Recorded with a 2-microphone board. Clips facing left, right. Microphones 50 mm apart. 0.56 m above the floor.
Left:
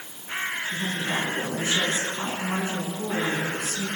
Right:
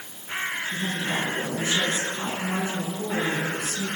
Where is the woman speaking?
45° left (ahead or behind), 8 m.